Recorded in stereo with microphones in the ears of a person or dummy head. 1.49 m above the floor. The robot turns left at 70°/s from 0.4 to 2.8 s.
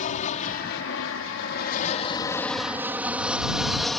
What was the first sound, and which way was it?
An aircraft, 45° left (ahead or behind).